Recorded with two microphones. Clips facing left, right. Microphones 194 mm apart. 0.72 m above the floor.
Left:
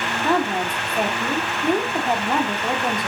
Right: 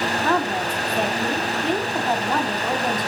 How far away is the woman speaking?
About 1.9 m.